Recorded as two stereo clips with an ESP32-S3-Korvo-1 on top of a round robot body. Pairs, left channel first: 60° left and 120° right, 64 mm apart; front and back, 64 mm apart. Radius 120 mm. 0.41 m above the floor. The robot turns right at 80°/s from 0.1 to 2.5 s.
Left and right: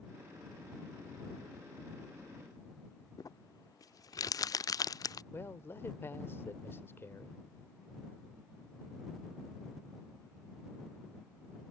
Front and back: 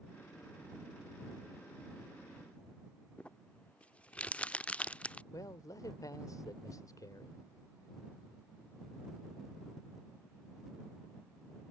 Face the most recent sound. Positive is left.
turn(degrees=10)